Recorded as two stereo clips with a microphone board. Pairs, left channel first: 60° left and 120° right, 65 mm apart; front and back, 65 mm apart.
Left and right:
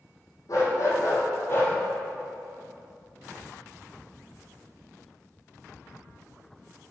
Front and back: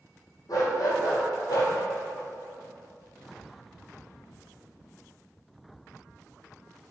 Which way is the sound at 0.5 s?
25° left.